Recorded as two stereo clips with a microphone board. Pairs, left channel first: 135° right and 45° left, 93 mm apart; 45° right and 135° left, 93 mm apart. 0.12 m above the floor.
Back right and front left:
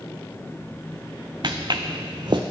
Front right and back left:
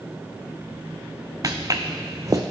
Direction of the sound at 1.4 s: 85° left.